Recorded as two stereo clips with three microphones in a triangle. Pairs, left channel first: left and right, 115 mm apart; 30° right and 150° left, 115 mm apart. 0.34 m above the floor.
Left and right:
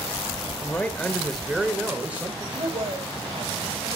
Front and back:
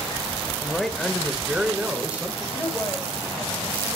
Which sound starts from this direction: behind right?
A woman speaking, at 2.5 s.